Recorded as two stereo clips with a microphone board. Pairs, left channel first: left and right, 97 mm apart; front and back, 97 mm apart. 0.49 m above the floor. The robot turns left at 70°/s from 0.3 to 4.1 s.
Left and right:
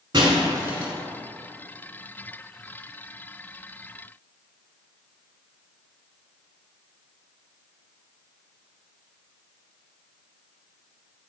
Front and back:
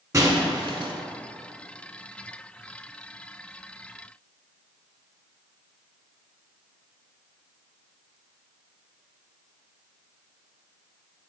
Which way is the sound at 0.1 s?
125° right.